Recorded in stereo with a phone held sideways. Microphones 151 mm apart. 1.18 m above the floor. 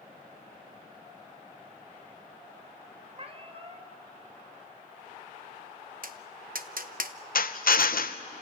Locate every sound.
3.1 s a cat meowing: 45° right (ahead or behind), 2 m
6.0 s tapping: 70° right (ahead or behind), 0.8 m
7.3 s a drill: 70° left (ahead or behind), 0.7 m